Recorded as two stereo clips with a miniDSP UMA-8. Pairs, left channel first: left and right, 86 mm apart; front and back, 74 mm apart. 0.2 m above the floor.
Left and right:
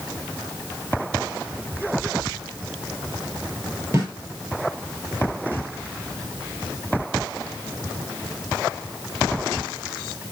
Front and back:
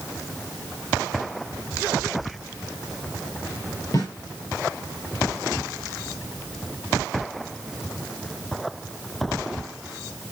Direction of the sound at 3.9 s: 35° right.